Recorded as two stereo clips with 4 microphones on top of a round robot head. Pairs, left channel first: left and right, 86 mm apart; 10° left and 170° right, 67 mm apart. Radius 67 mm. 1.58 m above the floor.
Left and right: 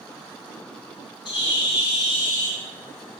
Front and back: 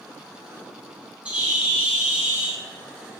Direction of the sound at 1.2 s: 120° left.